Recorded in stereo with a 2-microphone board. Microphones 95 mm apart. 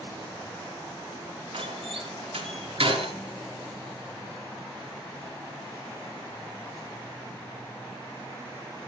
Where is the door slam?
80° right, 5 m.